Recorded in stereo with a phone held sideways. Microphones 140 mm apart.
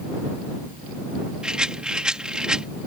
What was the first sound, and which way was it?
A rattle, 5° right (ahead or behind).